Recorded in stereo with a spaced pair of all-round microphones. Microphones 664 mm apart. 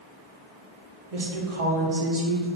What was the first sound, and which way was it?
A woman speaking, 60° right (ahead or behind).